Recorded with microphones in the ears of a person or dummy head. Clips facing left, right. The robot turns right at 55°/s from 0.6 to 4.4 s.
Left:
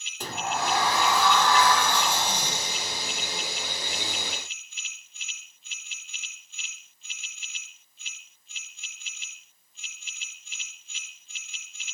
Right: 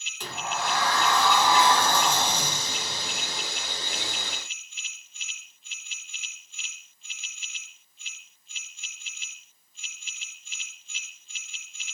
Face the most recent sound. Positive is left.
turn(degrees=-10)